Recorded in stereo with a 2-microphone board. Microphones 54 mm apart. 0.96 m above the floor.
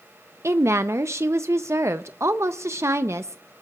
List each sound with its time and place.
0.4 s a woman speaking: 60° right (ahead or behind), 0.6 m